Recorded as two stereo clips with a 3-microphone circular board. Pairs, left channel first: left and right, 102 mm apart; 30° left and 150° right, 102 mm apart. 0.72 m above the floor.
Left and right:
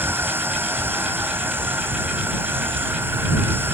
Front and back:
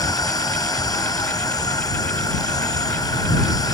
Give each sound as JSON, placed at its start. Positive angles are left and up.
{"t": 0.0, "sound": "an insect", "azimuth_deg": -20}